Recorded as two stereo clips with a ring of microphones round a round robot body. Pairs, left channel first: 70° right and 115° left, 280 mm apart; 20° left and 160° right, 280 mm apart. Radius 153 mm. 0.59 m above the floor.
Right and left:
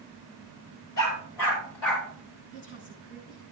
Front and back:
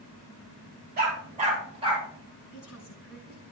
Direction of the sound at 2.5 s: 20° right.